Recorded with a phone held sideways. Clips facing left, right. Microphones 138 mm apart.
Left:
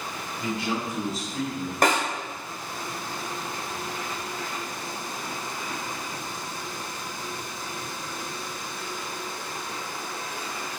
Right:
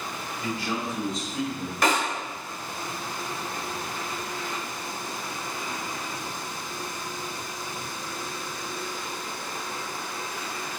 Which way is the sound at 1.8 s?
50° left (ahead or behind).